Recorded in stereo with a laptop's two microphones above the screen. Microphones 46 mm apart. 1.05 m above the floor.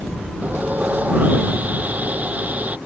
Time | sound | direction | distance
0.4 | sawing | 35° right (ahead or behind) | ?